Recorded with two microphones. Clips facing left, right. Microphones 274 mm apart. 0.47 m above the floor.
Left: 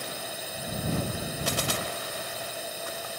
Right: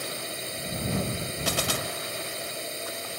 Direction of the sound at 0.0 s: 25° right (ahead or behind).